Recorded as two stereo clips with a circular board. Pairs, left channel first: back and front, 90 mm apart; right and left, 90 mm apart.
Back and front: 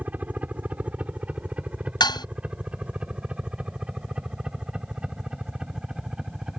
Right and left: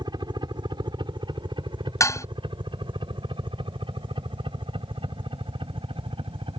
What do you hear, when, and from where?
0.0 s a helicopter: 70° left; by 6.6 s 85° left
2.0 s dishes clattering: 145° right